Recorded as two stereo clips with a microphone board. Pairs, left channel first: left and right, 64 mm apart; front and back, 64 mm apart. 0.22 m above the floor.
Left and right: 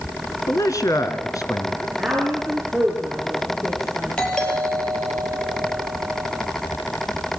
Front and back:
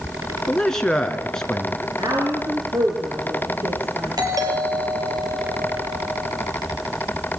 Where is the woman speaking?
170° right, 4 m.